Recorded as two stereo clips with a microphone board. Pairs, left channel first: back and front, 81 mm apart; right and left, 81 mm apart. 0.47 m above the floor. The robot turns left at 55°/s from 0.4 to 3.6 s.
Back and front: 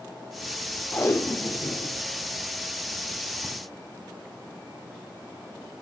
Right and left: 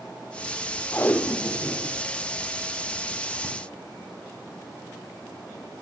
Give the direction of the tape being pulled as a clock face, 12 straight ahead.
4 o'clock.